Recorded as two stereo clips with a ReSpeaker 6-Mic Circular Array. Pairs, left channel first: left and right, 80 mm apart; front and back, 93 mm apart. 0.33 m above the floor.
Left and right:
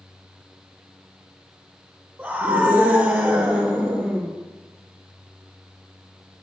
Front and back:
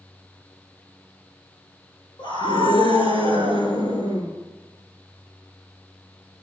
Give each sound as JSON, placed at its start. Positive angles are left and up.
{"t": 2.2, "sound": "a scream", "azimuth_deg": -20, "distance_m": 5.5}